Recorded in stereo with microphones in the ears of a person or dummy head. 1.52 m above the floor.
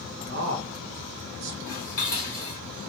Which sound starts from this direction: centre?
Dishes clattering, at 1.7 s.